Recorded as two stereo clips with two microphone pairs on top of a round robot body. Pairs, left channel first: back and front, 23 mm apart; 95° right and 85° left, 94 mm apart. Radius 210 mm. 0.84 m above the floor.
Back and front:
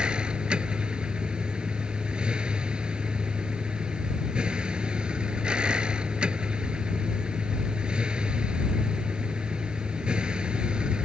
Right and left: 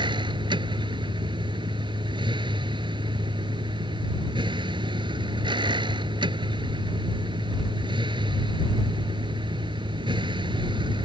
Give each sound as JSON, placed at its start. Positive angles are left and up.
{"t": 0.0, "sound": "a vehicle", "azimuth_deg": 45}